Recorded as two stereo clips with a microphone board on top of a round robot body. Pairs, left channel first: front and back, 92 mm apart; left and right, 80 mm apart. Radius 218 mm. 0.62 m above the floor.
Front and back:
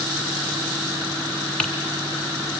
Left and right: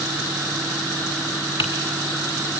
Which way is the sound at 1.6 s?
80° left.